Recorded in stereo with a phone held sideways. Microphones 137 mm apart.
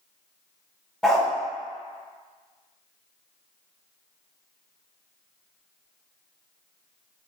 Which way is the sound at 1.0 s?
5° left (ahead or behind).